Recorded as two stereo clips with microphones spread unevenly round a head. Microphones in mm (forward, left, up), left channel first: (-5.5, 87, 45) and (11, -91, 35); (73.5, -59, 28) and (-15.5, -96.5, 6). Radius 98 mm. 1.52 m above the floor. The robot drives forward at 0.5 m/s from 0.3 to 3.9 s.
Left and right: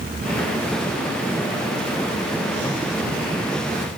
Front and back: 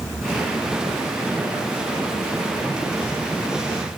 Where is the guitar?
No guitar in this recording.